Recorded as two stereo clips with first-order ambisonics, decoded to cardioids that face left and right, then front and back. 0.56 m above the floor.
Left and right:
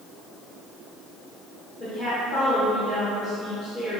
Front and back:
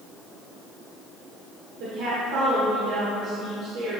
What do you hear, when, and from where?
1.8 s a woman speaking: 165° left, 1.5 m